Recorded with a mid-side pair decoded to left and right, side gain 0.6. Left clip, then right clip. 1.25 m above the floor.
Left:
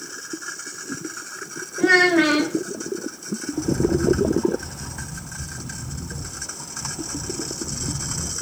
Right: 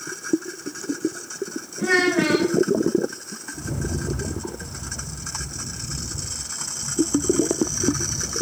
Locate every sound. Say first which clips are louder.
1.8 s a child speaking: left 4 dB; 35° left, 0.6 m
3.5 s a rattle: left 10 dB; 65° left, 0.9 m